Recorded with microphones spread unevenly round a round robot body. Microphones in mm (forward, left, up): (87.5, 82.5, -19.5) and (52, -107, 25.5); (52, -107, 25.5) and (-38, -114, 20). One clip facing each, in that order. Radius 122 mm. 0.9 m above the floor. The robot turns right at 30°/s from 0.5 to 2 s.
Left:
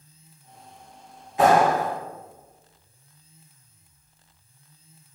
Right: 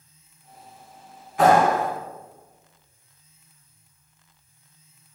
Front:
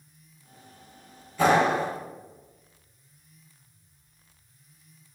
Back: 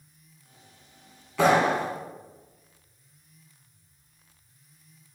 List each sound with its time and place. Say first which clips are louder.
1.4 s a clap: right 1 dB, even; 150° left, 2.5 m; by 1.9 s 165° left, 2.5 m